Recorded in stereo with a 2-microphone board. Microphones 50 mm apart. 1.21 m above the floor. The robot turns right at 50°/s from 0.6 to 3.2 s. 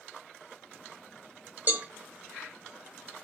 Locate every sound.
1.7 s a cowbell: 35° right (ahead or behind), 0.8 m; by 1.9 s 25° right (ahead or behind), 0.8 m